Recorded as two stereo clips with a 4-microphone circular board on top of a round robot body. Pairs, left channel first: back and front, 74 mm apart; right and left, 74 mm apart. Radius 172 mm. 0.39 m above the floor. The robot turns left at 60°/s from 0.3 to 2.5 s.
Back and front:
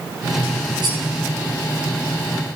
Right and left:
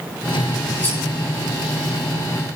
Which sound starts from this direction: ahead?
Cutlery clinking, at 0.8 s.